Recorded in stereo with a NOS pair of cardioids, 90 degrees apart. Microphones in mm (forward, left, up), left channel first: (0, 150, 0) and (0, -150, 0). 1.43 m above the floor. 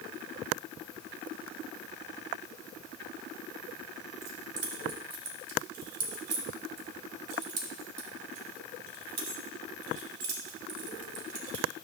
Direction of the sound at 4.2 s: 60° right.